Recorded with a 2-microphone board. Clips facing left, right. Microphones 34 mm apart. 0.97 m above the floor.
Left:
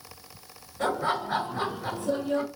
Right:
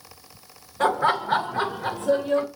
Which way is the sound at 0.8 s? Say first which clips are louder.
Right 6 dB; 75° right (ahead or behind).